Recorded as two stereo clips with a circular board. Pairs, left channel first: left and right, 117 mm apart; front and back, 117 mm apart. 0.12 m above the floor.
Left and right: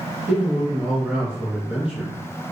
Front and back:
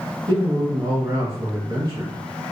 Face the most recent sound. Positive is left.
turn(degrees=-160)